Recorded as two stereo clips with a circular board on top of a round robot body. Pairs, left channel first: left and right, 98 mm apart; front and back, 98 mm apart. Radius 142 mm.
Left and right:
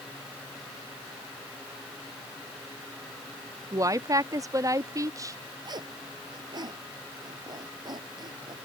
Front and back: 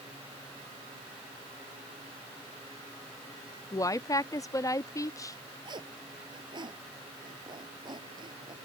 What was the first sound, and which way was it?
A woman speaking, 45° right.